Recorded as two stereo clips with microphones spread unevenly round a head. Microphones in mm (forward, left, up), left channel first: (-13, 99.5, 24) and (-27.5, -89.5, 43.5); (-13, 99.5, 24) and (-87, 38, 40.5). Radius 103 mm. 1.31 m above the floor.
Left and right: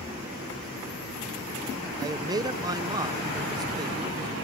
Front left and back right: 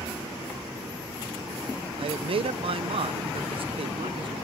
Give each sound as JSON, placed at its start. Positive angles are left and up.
{"t": 2.0, "sound": "a man speaking", "azimuth_deg": -165, "distance_m": 0.8}